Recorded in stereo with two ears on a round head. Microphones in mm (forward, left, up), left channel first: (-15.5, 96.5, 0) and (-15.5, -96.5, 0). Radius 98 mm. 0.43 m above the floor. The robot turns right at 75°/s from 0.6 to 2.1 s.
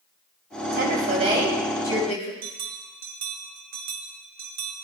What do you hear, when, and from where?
0.7 s a woman speaking: 70° right, 2.5 m; by 2.3 s 35° left, 2.5 m
2.4 s a bell: 60° right (ahead or behind), 1.8 m